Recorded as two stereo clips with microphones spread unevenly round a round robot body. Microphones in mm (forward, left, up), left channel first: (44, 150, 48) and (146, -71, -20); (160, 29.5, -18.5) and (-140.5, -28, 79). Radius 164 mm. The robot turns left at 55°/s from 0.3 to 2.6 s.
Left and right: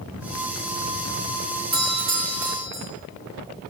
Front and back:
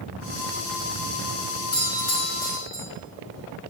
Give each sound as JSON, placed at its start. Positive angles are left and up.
{"t": 1.7, "sound": "a doorbell", "azimuth_deg": -35, "distance_m": 3.5}